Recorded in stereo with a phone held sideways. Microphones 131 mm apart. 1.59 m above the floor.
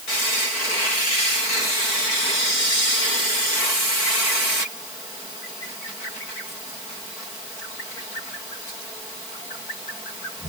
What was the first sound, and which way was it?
Only background noise.